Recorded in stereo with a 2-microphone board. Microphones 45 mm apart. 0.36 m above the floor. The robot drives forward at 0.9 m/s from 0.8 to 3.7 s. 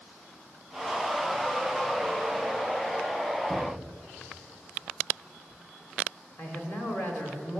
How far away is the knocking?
About 5.5 m.